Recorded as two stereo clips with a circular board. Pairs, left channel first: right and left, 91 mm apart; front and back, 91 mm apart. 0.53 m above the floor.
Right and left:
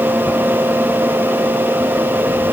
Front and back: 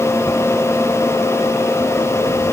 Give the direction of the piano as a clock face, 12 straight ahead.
I don't hear a piano.